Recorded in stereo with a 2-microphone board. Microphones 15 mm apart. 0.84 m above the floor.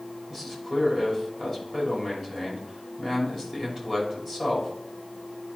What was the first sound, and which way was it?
A man speaking, 10° right (ahead or behind).